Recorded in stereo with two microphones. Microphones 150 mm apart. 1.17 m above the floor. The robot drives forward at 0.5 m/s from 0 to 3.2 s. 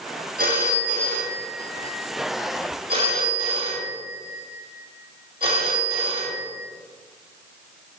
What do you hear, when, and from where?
0.4 s a phone ringing: 75° right (ahead or behind), 1.3 m; by 6.6 s 35° right (ahead or behind), 2 m